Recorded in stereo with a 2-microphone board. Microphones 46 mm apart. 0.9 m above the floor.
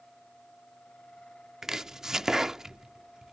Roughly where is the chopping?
Centre.